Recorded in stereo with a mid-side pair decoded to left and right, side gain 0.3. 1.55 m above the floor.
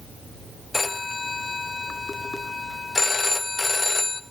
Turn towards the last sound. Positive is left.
turn(degrees=45)